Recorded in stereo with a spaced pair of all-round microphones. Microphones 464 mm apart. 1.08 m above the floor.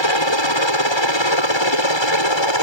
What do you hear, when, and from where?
0.0 s a helicopter: 70° left (ahead or behind)